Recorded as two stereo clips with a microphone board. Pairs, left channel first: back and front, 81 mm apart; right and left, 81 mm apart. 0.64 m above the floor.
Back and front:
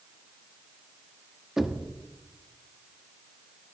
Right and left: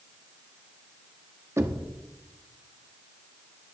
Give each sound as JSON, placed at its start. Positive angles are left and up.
{"t": 1.6, "sound": "knocking", "azimuth_deg": 80, "distance_m": 1.0}